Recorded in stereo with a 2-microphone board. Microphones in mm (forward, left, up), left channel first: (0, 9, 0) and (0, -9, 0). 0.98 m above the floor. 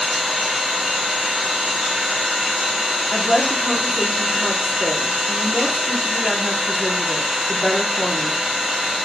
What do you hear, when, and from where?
0.0 s an engine running: 30° right (ahead or behind), 1.1 m
3.1 s a woman speaking: 15° left (ahead or behind), 0.7 m